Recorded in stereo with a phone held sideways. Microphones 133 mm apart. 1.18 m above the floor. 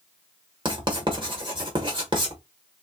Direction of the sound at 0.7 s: 35° right (ahead or behind).